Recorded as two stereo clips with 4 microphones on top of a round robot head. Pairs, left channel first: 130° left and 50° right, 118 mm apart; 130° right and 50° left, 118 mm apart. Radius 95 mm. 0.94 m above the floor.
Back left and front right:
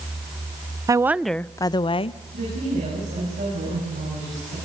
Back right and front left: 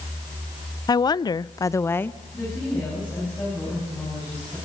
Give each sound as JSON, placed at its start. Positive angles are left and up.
{"t": 0.9, "sound": "a woman speaking", "azimuth_deg": -95, "distance_m": 0.5}
{"t": 2.3, "sound": "a woman speaking", "azimuth_deg": -60, "distance_m": 8.5}